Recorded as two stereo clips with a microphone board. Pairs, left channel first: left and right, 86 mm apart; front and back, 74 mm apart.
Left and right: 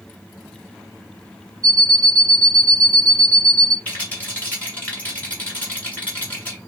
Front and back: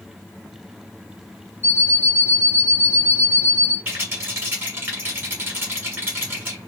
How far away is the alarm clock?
About 0.8 m.